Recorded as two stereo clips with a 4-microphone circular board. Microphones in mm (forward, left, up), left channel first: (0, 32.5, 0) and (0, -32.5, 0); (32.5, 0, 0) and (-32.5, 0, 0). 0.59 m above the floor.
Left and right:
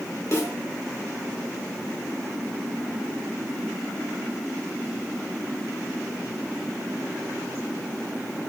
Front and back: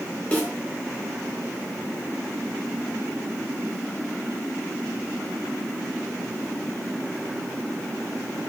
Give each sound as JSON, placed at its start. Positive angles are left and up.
{"t": 0.3, "sound": "a snare drum", "azimuth_deg": 60, "distance_m": 2.0}